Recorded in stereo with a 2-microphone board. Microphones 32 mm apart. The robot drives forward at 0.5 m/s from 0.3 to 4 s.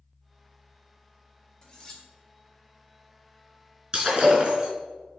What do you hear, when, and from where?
1.6 s cutlery clinking: 20° left (ahead or behind), 1.3 m; by 2.0 s 15° left (ahead or behind), 1.5 m
3.9 s breaking glass: 25° right (ahead or behind), 3 m